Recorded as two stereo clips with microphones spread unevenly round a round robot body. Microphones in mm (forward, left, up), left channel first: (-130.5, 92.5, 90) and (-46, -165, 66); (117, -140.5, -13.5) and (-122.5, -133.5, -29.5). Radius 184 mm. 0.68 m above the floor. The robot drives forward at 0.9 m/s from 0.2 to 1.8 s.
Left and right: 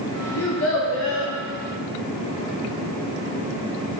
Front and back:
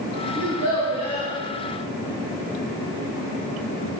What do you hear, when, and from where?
0.4 s a child speaking: 130° left, 1.0 m; by 1.3 s 155° left, 1.7 m